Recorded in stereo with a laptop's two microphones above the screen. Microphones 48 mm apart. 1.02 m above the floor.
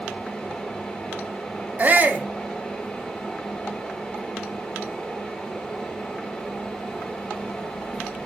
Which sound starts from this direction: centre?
A fan, at 0.0 s.